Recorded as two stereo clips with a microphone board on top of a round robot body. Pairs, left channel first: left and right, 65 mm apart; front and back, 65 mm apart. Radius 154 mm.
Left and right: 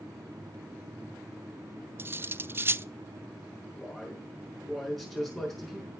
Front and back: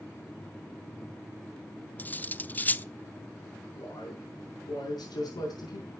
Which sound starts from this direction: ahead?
A man speaking, at 3.8 s.